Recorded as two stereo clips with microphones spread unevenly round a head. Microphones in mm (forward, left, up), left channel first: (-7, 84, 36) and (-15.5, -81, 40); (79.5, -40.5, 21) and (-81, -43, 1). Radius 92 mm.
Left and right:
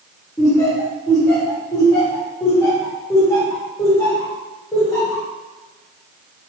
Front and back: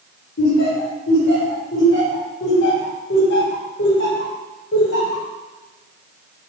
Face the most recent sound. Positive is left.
turn(degrees=15)